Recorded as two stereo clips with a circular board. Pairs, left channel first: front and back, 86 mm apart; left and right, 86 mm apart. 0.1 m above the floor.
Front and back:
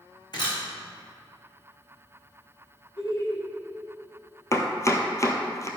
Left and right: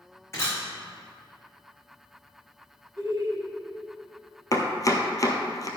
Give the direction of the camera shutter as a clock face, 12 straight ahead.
11 o'clock.